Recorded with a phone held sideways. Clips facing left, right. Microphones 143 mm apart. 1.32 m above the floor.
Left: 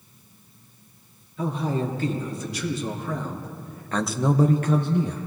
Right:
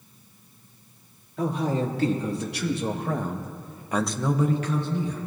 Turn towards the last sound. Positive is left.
turn(degrees=70)  # may be behind; listen again after turning